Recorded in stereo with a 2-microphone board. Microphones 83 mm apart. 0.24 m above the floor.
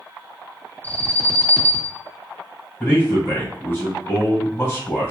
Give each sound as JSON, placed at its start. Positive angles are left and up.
{"t": 0.8, "sound": "an alarm", "side_deg": 25, "distance_m": 1.8}
{"t": 2.8, "sound": "a man speaking", "side_deg": 35, "distance_m": 1.5}